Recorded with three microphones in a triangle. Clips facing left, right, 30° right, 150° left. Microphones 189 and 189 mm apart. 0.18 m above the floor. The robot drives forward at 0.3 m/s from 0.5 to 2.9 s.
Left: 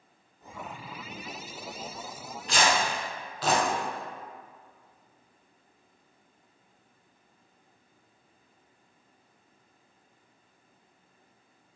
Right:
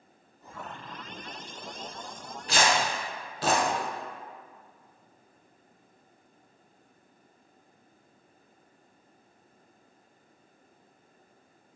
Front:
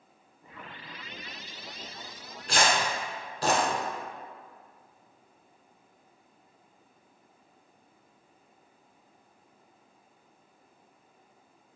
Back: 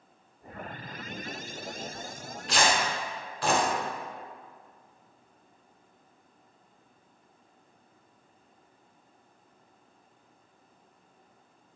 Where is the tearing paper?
60° right, 0.9 m; by 3.6 s 70° right, 0.9 m.